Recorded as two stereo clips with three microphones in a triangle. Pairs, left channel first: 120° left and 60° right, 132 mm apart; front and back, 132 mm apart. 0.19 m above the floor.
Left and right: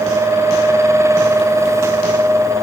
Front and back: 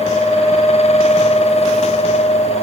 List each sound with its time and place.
Only background noise.